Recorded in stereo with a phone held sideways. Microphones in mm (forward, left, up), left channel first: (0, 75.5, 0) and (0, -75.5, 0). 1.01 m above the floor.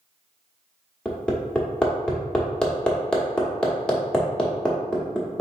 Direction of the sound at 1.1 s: 5° left (ahead or behind).